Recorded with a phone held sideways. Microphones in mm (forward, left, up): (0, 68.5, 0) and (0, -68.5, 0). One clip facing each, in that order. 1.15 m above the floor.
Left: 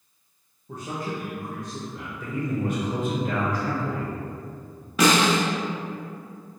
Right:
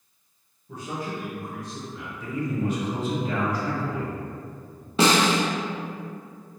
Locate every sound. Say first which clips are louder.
0.7 s a man speaking: left 1 dB; 55° left (ahead or behind), 0.8 m
2.2 s a man speaking: even; 55° left (ahead or behind), 1.2 m
5.0 s a snare drum: even; 30° right (ahead or behind), 0.5 m